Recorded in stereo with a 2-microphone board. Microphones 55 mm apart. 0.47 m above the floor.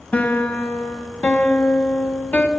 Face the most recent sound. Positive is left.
turn(degrees=25)  # may be behind; listen again after turning